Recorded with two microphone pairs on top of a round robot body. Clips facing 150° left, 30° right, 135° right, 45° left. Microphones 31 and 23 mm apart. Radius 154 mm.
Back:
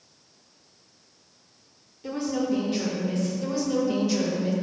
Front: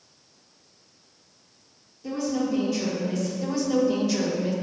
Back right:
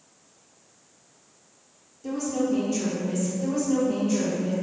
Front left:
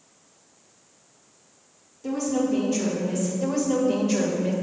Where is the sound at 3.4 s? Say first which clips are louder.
Front 4 dB, front left 1 dB; 65° left, 2 m.